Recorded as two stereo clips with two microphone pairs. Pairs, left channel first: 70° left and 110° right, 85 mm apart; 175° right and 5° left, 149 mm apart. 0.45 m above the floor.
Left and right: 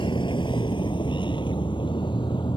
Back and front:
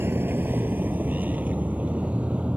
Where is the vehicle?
80° left; by 2.6 s 85° left.